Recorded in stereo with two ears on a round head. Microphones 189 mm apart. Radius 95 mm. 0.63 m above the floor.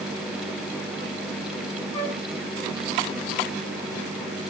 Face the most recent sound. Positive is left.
turn(degrees=10)  # may be behind; listen again after turning